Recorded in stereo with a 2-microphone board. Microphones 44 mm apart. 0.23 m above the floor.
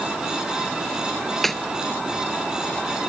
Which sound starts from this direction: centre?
A snare drum, at 1.4 s.